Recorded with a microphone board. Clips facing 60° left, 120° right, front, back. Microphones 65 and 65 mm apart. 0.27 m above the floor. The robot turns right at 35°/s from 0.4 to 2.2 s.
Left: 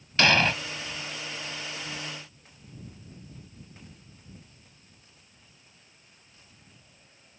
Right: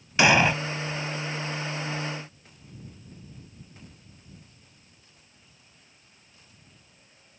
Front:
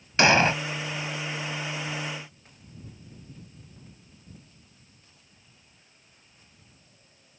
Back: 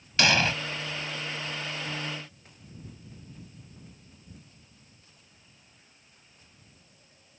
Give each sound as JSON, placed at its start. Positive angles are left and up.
{"t": 0.2, "sound": "an explosion", "azimuth_deg": -55}